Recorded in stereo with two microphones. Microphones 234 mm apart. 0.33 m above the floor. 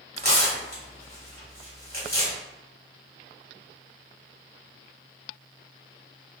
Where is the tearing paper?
40° right (ahead or behind), 1.4 m.